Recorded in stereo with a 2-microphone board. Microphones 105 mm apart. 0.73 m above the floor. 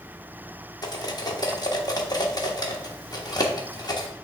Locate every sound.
0.8 s cutlery clinking: 40° left (ahead or behind), 1.0 m